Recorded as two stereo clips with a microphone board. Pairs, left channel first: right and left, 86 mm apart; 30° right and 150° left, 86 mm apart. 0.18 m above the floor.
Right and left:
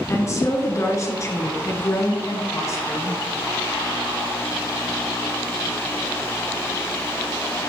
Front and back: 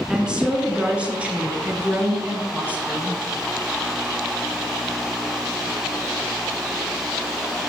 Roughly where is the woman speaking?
Behind right.